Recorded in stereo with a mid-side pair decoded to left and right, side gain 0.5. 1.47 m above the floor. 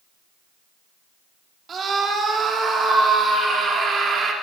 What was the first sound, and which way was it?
A scream, 45° right.